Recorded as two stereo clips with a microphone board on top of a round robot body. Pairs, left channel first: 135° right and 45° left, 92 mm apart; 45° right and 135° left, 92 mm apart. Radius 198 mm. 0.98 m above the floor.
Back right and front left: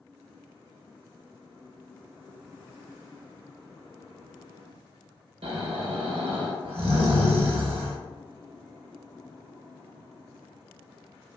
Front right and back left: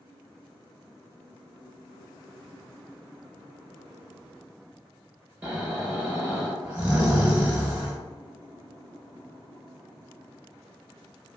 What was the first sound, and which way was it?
Snoring, 60° left.